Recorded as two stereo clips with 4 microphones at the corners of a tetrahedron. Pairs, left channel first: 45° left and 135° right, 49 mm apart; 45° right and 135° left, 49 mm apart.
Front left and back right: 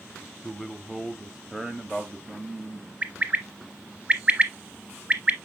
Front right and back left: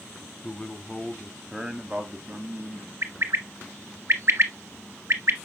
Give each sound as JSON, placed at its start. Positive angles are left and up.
{"t": 0.4, "sound": "a man speaking", "azimuth_deg": -50, "distance_m": 1.0}
{"t": 3.0, "sound": "a bird", "azimuth_deg": 165, "distance_m": 0.8}